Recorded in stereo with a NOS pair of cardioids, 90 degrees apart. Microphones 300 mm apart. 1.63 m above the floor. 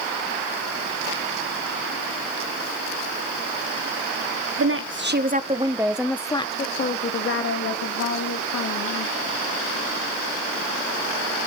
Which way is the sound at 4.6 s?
50° right.